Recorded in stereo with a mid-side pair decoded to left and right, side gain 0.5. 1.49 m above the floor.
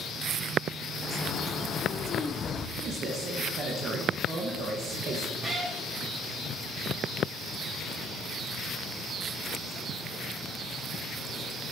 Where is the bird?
50° left, 0.5 m.